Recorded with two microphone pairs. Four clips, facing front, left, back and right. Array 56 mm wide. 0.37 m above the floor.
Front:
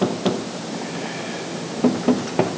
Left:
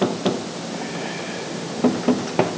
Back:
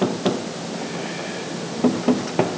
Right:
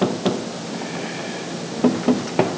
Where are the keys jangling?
No keys jangling in this recording.